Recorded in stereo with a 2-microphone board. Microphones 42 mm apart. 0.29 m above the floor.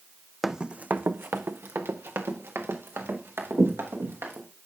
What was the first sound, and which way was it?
Running footsteps, 5° right (ahead or behind).